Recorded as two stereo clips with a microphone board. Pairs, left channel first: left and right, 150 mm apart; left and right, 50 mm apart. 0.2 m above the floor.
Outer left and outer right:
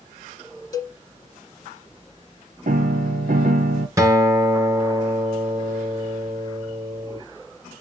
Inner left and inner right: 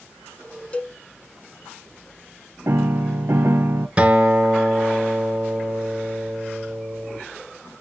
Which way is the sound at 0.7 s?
25° left (ahead or behind).